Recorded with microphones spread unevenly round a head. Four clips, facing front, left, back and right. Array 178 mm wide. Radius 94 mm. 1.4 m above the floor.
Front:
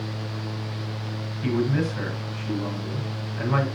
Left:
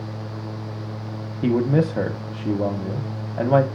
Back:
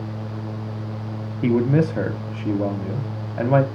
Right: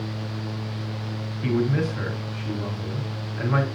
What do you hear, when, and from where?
1.4 s a man speaking: 130° left, 1.1 m